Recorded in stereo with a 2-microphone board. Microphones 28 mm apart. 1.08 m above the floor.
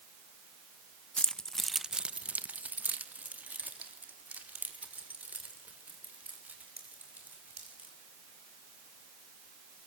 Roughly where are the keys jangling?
Left.